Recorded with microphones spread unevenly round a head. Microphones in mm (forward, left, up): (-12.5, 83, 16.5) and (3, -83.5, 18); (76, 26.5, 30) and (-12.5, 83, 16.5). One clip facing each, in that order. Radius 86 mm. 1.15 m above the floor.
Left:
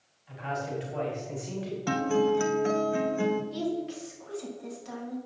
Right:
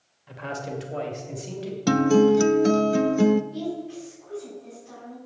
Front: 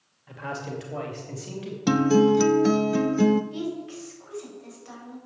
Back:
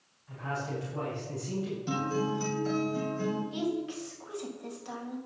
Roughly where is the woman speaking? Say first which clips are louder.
Even, even; left.